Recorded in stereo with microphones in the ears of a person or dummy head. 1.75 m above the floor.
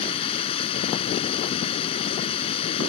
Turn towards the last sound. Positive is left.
turn(degrees=40)  # may be behind; listen again after turning